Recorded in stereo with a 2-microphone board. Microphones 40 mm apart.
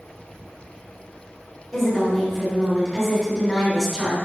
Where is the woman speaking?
10° left (ahead or behind), 1.7 m.